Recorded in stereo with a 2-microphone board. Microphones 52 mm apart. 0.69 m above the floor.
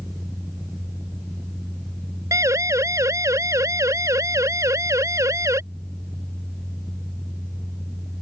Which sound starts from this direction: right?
A siren, at 2.3 s.